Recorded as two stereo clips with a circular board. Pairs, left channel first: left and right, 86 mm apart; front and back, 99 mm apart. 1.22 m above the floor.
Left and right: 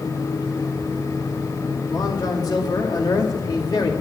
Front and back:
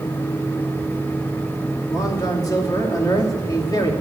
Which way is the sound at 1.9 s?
50° left.